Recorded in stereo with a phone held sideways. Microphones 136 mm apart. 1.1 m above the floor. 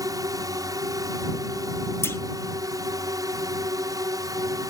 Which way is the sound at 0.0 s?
25° right (ahead or behind).